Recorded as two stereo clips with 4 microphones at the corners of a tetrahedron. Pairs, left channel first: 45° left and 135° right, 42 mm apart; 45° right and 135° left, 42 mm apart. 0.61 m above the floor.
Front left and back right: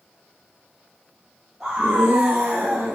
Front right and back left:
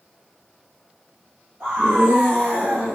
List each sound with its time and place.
1.6 s a scream: 150° left, 3.5 m; by 3.0 s straight behind, 3.5 m